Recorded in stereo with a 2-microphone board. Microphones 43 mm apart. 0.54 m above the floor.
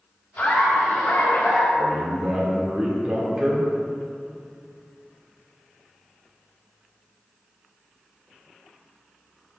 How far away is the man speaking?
About 1.8 m.